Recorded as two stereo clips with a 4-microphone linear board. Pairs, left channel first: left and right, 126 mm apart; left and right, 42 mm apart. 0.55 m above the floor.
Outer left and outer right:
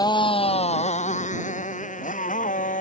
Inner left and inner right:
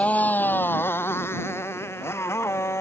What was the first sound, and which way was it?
A motorcycle, 35° left (ahead or behind).